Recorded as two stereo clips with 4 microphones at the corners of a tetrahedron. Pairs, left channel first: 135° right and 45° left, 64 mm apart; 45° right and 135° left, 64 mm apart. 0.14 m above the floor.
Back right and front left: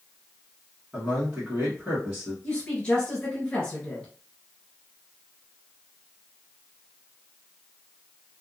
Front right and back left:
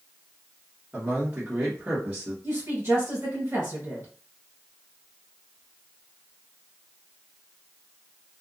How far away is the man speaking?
About 1.6 m.